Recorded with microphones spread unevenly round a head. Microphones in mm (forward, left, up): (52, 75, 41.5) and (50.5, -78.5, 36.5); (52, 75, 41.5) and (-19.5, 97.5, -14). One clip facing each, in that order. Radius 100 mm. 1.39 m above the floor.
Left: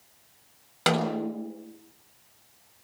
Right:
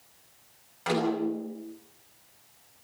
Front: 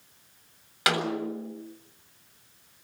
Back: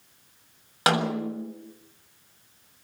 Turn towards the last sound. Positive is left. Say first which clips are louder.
# even, back 3 dB
turn(degrees=110)